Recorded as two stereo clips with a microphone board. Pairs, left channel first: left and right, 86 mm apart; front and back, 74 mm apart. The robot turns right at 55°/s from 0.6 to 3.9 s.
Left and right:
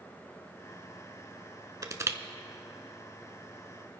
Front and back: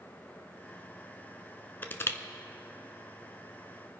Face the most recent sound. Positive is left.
turn(degrees=55)